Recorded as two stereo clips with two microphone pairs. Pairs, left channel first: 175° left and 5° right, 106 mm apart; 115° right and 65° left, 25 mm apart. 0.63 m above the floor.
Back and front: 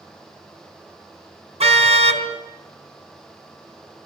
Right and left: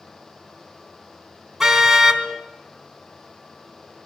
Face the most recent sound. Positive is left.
turn(degrees=-10)